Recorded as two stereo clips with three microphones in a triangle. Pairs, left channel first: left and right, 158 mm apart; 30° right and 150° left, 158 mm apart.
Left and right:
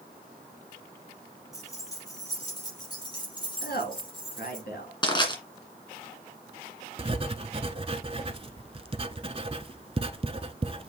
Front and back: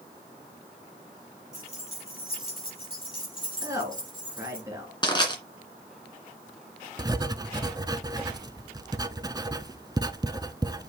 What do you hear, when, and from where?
1.5 s keys jangling: 20° left, 4 m; by 4.6 s 30° left, 5.5 m
3.6 s a woman speaking: 80° left, 3 m
5.0 s crushing: 30° left, 2 m
7.0 s writing: 140° right, 0.5 m